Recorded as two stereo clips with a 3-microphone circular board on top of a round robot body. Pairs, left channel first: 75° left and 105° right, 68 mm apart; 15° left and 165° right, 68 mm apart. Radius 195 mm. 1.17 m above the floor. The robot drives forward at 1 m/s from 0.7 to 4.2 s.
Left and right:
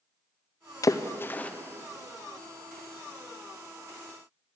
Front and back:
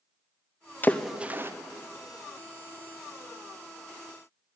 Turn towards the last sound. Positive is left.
turn(degrees=175)